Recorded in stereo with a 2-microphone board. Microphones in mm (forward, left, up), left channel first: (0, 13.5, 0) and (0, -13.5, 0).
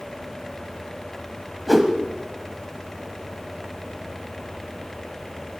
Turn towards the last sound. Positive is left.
turn(degrees=-10)  # may be behind; listen again after turning